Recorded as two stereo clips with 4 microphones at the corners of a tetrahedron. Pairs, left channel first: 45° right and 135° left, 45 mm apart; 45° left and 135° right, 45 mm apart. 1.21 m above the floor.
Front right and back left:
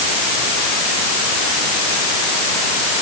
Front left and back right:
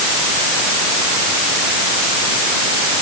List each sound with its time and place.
Only background noise.